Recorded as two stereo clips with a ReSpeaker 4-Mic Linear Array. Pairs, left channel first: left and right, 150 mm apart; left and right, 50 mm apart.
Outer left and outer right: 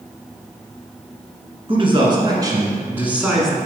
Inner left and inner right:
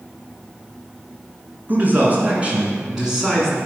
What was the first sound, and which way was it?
A man speaking, 40° right (ahead or behind).